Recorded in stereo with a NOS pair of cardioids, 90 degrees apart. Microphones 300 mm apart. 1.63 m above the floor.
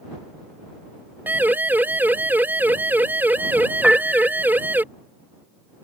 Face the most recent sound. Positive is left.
turn(degrees=0)